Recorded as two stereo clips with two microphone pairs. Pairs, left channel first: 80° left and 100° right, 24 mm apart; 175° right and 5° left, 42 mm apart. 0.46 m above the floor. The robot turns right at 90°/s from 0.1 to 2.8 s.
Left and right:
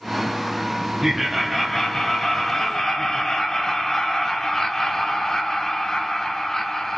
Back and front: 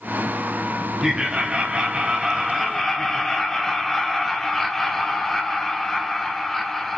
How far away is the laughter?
About 0.8 m.